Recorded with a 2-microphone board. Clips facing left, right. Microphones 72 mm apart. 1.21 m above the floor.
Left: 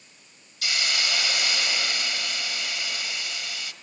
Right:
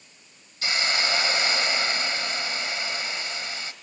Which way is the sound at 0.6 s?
30° right (ahead or behind).